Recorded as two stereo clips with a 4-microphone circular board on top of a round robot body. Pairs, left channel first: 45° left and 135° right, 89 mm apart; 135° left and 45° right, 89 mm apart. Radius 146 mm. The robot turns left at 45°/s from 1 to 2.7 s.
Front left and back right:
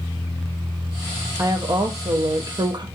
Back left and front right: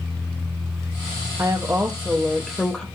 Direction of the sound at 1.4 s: 85° right.